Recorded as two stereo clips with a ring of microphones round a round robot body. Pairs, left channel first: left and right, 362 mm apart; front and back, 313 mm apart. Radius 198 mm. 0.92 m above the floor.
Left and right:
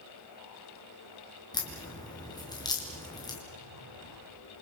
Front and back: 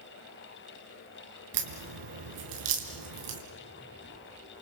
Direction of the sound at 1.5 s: 170° left.